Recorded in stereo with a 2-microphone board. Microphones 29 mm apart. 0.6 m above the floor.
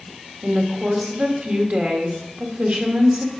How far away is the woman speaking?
About 1.5 m.